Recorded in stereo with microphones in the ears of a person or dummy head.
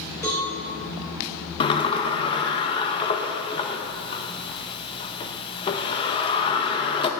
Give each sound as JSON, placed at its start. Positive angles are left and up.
{"t": 0.2, "sound": "a cowbell", "side_deg": 15, "distance_m": 2.5}
{"t": 1.6, "sound": "a sliding door", "side_deg": 20, "distance_m": 0.8}